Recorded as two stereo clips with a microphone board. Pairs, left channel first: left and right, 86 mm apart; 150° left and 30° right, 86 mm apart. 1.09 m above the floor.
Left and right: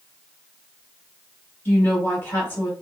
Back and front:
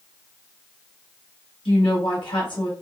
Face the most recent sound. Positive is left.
turn(degrees=160)